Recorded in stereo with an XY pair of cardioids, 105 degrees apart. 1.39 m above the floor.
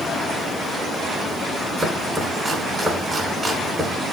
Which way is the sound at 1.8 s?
20° right.